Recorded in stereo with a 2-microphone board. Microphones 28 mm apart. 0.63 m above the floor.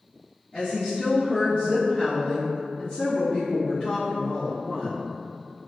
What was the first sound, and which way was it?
A woman speaking, 35° left (ahead or behind).